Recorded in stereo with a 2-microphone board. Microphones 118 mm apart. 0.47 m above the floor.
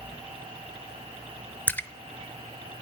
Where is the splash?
15° left (ahead or behind), 0.5 m.